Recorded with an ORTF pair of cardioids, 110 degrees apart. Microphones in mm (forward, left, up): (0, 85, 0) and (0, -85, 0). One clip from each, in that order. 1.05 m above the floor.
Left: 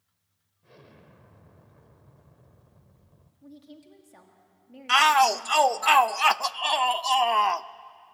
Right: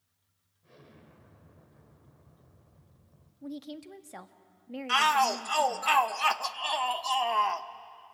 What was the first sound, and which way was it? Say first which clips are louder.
An explosion: left 3 dB; 25° left.